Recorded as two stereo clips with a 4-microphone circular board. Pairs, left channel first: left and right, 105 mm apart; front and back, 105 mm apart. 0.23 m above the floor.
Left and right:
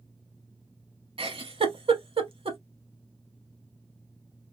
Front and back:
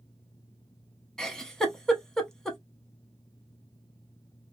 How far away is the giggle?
About 0.7 m.